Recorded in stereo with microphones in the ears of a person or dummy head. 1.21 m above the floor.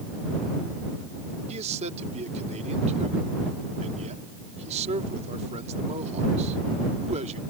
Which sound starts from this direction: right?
A man speaking, at 1.5 s.